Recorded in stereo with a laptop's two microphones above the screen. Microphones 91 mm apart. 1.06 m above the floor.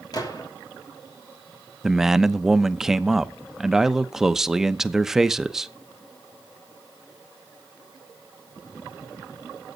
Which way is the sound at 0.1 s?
45° left (ahead or behind).